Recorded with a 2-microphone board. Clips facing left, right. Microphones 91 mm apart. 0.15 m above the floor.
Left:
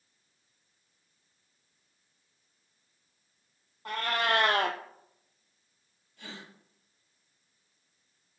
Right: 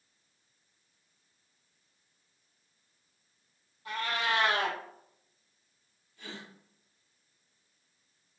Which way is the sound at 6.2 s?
75° left (ahead or behind).